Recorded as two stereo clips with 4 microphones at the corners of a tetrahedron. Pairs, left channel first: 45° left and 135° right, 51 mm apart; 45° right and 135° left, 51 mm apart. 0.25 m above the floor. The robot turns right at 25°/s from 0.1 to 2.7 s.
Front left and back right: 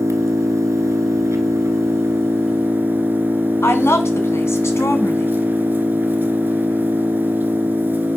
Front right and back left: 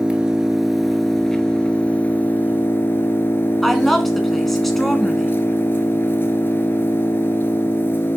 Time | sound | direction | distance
0.0 | an engine running | 155° right | 1.2 m
3.6 | a woman speaking | 40° left | 1.9 m